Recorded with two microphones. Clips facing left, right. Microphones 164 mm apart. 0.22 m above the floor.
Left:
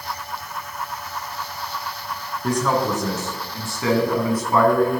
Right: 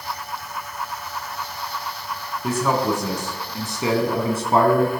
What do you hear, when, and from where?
2.4 s a man speaking: 5° right (ahead or behind), 2.5 m; by 4.9 s 35° right (ahead or behind), 1.9 m